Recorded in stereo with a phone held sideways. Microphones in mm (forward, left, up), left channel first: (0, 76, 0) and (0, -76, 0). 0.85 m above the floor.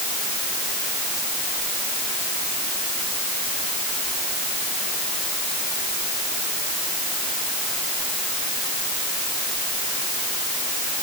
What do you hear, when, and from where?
Only background noise.